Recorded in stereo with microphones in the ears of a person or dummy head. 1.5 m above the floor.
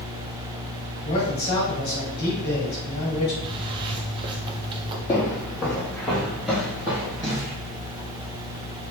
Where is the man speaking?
45° left (ahead or behind), 2 m.